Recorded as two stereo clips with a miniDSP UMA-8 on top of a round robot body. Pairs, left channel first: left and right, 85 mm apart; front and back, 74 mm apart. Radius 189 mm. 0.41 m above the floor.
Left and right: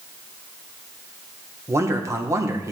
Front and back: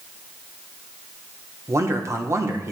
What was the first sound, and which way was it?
A man speaking, 140° right.